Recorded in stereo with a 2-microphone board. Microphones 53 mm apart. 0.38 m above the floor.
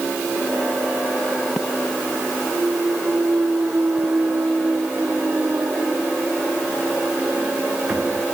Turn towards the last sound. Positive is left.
turn(degrees=-35)  # may be behind; listen again after turning